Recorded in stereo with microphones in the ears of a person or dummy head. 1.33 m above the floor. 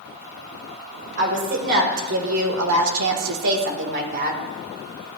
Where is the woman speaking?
55° right (ahead or behind), 2 m; by 4.4 s 45° right (ahead or behind), 1.7 m.